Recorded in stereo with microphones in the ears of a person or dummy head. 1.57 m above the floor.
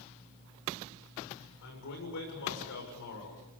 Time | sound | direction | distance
1.6 | a man speaking | 70° left (ahead or behind) | 7 m